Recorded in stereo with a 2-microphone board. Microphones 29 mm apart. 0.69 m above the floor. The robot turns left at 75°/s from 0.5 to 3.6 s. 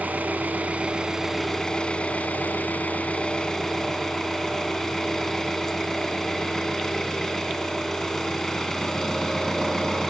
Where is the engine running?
110° right, 3 m; by 10.1 s 15° left, 3 m.